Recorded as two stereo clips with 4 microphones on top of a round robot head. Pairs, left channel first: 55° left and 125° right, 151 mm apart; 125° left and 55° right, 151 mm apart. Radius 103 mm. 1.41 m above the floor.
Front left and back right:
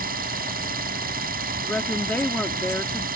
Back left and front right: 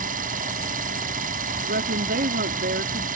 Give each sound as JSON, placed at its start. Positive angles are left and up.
{"t": 0.0, "sound": "an engine running", "azimuth_deg": -90}
{"t": 1.6, "sound": "a woman speaking", "azimuth_deg": -25}